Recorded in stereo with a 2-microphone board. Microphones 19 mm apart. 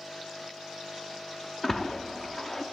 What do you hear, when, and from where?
1.6 s a splash: 15° left (ahead or behind), 0.7 m